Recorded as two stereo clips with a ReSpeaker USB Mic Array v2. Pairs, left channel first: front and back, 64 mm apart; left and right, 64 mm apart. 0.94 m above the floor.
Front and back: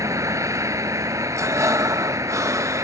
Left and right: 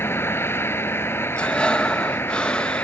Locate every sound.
0.0 s a vehicle: 140° left
1.4 s breathing: 160° left